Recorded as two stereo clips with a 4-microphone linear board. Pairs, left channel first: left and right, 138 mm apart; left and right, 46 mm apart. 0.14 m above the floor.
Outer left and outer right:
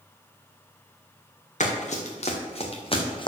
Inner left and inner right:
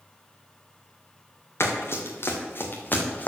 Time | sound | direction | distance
1.6 | running footsteps | 60° left (ahead or behind) | 2.5 m